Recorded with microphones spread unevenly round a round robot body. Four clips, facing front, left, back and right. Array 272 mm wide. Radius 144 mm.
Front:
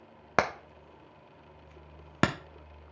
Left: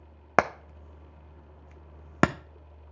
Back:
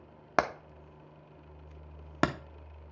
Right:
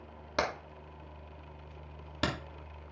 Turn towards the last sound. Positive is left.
turn(degrees=115)